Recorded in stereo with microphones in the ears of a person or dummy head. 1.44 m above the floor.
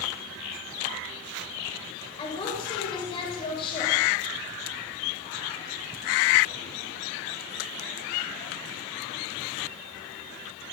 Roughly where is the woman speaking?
Left.